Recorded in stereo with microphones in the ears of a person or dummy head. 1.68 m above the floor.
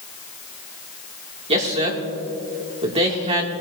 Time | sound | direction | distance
1.5 | a man speaking | 30° right (ahead or behind) | 1.7 m